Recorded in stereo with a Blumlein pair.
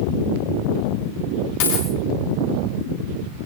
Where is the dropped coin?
50° left, 8.5 m.